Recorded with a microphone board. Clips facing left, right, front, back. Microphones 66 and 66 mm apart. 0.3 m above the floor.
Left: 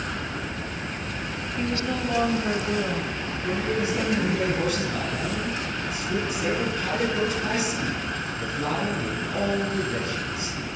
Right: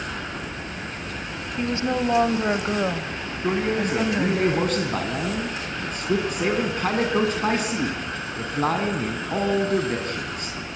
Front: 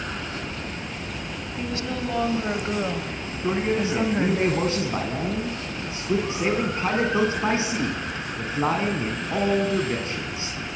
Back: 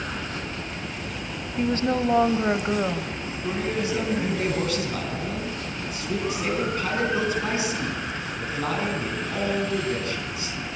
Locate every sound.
1.6 s a woman speaking: 145° right, 2 m; by 4.4 s 45° right, 2 m
3.4 s a man speaking: 60° right, 3 m